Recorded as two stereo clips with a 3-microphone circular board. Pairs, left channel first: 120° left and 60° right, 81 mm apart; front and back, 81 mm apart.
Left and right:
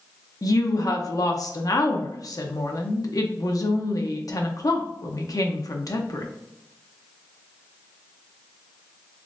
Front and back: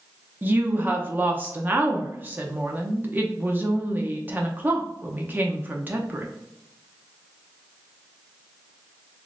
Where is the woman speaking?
125° left, 0.7 m.